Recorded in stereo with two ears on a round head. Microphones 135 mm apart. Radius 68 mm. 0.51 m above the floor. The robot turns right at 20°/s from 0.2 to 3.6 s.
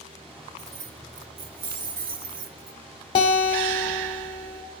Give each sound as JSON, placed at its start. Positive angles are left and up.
{"t": 0.6, "sound": "keys jangling", "azimuth_deg": -125, "distance_m": 1.1}
{"t": 3.1, "sound": "a guitar", "side_deg": 35, "distance_m": 1.3}